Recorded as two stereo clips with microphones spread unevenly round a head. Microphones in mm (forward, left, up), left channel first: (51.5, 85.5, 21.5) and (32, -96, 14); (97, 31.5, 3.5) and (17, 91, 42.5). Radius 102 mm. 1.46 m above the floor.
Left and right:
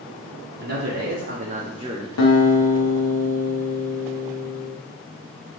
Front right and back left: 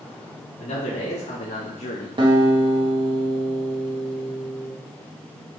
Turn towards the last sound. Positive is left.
turn(degrees=95)